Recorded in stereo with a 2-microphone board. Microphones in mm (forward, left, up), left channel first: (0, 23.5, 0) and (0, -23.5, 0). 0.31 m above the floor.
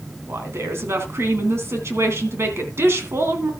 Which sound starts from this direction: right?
A woman speaking, at 0.3 s.